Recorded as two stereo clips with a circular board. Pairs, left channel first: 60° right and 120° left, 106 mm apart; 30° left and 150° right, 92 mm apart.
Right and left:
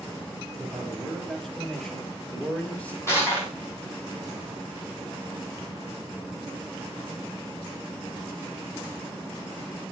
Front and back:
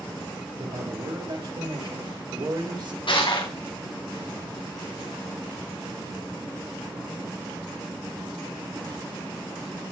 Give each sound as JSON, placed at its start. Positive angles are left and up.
{"t": 0.6, "sound": "a man speaking", "azimuth_deg": -150, "distance_m": 5.0}
{"t": 3.1, "sound": "crushing", "azimuth_deg": 5, "distance_m": 6.0}